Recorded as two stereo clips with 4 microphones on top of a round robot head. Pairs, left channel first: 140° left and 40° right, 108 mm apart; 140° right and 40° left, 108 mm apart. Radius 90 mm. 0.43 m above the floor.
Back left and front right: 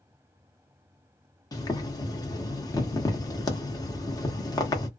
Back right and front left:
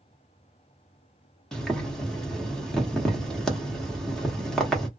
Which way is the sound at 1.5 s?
140° left.